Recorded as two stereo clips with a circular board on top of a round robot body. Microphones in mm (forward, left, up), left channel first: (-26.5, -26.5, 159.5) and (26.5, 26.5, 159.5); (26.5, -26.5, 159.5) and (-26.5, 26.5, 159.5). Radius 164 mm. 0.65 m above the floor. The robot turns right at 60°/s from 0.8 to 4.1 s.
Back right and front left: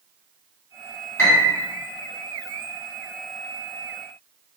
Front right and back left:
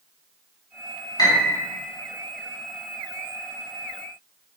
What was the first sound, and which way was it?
A piano, 75° right.